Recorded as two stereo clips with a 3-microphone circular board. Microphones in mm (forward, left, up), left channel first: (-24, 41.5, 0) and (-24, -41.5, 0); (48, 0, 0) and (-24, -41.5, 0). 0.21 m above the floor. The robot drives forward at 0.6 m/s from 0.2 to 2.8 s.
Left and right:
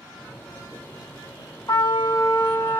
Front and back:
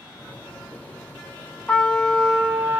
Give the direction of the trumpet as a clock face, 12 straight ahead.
9 o'clock.